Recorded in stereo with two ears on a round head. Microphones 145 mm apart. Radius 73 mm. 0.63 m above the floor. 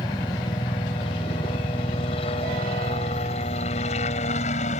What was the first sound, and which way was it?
A helicopter, 30° left (ahead or behind).